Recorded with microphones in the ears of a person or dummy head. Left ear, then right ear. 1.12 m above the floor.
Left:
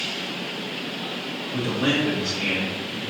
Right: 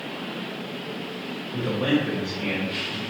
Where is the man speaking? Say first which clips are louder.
Left 1 dB; 30° right (ahead or behind), 1.8 m; by 3.0 s centre (ahead or behind), 2.0 m.